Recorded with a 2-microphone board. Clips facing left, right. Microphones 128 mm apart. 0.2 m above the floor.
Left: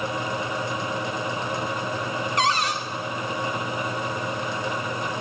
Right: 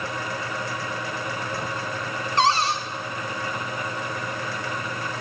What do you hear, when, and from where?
2.4 s a cupboard door: 30° right (ahead or behind), 0.8 m